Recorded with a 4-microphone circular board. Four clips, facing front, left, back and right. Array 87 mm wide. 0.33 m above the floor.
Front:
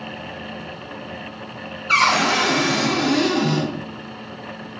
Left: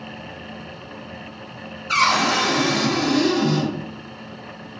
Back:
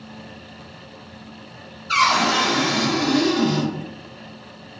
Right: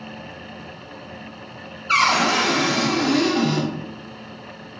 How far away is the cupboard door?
About 1.8 m.